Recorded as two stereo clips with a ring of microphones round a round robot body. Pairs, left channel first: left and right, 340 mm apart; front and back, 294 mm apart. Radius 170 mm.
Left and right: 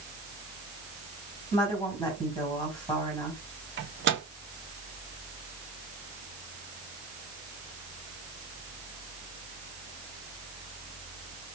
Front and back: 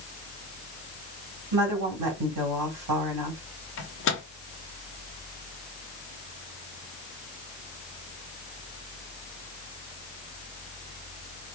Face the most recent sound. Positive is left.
turn(degrees=-40)